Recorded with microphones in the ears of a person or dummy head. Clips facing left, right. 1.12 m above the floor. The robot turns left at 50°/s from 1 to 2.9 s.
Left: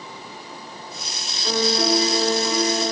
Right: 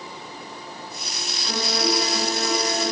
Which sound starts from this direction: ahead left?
A piano, at 1.4 s.